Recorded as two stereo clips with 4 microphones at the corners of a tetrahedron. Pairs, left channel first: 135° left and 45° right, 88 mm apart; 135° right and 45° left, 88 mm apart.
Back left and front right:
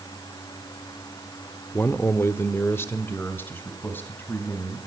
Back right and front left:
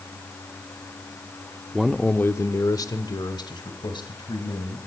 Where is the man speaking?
115° left, 0.7 m; by 4.8 s 160° right, 3 m.